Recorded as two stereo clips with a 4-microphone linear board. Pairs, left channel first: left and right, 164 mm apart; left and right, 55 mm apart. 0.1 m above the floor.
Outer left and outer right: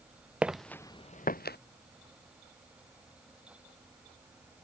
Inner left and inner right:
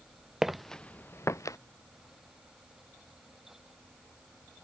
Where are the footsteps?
10° right (ahead or behind); by 1.6 s 80° left.